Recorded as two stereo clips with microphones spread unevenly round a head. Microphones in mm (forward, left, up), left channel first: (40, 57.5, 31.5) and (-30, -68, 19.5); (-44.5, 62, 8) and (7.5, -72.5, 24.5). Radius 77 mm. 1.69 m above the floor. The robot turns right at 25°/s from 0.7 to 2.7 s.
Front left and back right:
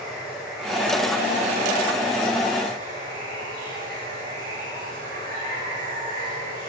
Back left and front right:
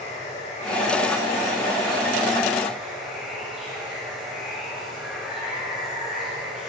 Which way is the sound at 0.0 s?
155° left.